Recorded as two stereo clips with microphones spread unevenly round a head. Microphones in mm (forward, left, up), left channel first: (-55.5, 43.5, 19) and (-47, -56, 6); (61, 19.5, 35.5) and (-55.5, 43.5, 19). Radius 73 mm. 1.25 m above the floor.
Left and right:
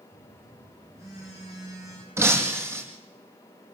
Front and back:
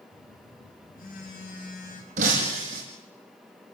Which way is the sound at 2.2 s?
150° right.